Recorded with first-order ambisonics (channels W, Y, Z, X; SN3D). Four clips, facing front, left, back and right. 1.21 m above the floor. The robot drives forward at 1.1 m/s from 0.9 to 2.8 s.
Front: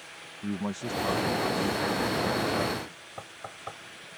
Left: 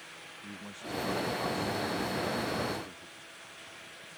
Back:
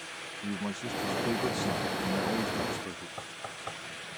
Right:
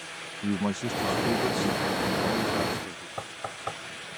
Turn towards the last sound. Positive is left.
turn(degrees=-90)